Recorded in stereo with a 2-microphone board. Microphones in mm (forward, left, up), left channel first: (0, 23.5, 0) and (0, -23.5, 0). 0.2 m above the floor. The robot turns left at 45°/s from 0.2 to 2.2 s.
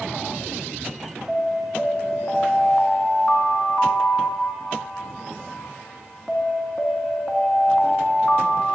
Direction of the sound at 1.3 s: 170° right.